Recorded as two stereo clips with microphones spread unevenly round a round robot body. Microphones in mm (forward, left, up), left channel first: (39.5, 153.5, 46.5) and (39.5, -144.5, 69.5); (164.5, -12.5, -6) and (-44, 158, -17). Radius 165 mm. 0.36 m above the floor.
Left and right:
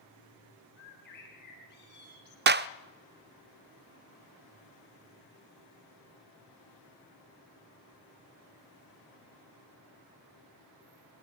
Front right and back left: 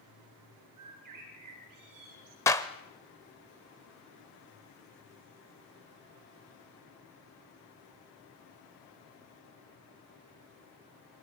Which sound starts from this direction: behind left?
A bird, at 0.8 s.